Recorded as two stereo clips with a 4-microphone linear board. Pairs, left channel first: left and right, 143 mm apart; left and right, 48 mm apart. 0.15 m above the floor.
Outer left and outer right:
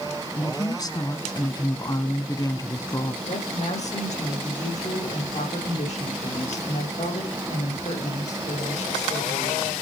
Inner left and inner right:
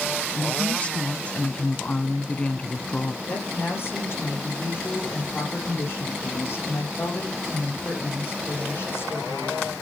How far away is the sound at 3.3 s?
About 7 m.